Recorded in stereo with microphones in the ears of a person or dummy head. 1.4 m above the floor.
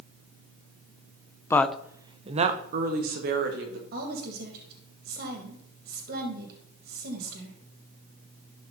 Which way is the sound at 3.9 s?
55° right (ahead or behind).